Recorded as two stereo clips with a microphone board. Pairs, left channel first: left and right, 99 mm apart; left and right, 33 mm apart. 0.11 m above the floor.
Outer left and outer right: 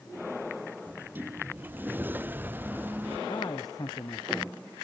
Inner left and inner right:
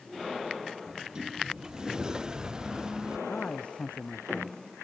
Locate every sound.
0.9 s a sliding door: 20° right (ahead or behind)
3.3 s a man speaking: 40° left (ahead or behind)